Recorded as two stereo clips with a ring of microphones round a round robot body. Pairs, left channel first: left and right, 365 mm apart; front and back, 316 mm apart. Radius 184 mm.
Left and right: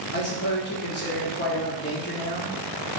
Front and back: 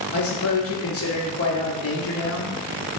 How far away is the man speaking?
About 1.1 m.